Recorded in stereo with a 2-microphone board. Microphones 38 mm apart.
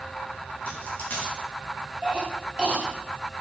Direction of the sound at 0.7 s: 45° left (ahead or behind).